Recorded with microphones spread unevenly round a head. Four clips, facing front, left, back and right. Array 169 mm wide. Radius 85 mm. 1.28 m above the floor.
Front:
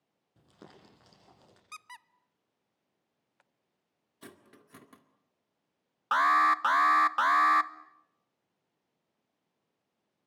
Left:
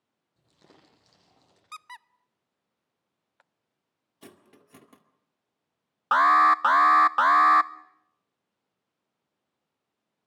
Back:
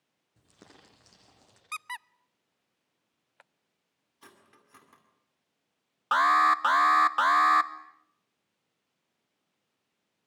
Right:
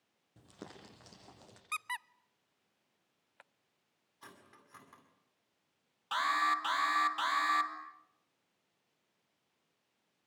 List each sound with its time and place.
0.4 s crumpling: 90° right, 8 m
1.7 s a squeak: 155° right, 0.5 m
4.2 s cutlery clinking: 55° left, 2.0 m
6.1 s an alarm: 105° left, 0.9 m